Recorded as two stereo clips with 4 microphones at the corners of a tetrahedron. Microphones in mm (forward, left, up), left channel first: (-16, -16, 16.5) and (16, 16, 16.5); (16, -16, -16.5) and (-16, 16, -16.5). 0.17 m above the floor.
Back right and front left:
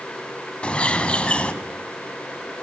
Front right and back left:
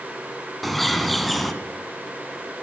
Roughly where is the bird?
Behind right.